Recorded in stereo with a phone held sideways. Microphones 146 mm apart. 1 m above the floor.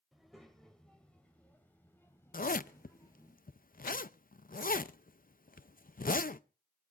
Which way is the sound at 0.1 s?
Centre (ahead or behind).